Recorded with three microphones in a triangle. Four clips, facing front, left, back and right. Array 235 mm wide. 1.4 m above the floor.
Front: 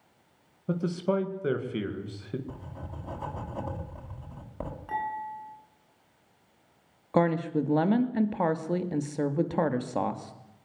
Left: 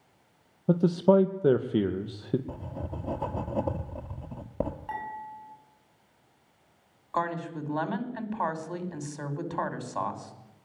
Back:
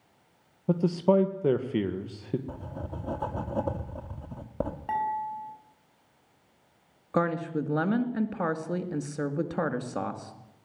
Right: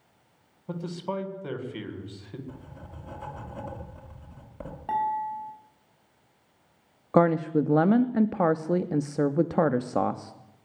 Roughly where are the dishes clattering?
Behind right.